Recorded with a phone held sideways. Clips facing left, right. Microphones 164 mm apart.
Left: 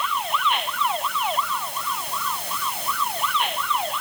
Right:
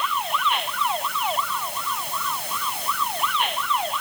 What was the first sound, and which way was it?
Only background noise.